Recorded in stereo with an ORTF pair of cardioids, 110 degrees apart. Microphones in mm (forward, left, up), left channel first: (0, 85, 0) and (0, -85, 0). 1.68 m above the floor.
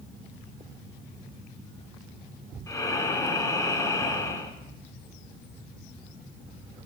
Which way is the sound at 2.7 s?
20° left.